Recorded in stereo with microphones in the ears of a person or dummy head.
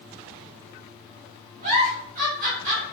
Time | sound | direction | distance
1.6 | a giggle | 40° right (ahead or behind) | 1.4 m